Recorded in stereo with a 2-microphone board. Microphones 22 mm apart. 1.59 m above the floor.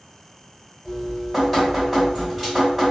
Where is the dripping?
Centre (ahead or behind), 1.5 m.